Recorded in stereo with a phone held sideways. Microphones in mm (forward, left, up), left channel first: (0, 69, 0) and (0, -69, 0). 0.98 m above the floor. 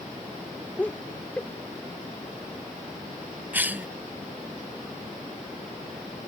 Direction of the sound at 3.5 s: 10° right (ahead or behind).